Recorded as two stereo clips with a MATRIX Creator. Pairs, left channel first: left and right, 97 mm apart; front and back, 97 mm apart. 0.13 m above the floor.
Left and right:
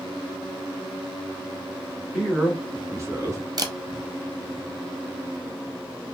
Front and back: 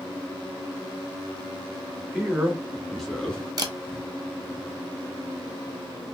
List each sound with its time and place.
2.1 s a man speaking: 160° right, 1.0 m; by 3.4 s 75° right, 1.3 m
3.6 s a camera shutter: 135° right, 0.6 m